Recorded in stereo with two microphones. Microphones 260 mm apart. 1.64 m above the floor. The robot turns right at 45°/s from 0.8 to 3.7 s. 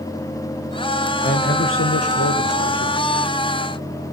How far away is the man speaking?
About 1.5 m.